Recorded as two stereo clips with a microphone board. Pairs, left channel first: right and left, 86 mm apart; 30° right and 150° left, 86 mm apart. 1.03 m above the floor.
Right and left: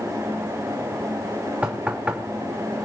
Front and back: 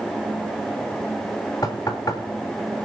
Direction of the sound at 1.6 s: 15° left.